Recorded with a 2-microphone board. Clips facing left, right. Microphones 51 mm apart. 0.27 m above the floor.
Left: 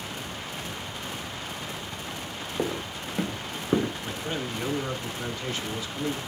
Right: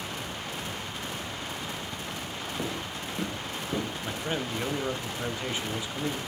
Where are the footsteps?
25° left (ahead or behind), 1.7 m; by 3.9 s 50° left (ahead or behind), 2.5 m.